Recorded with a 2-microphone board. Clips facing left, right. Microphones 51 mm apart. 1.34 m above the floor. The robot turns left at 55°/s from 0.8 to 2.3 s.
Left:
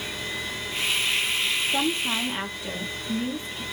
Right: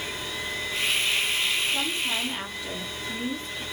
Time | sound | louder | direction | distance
1.7 | a woman speaking | left 3 dB | 50° left | 1.2 m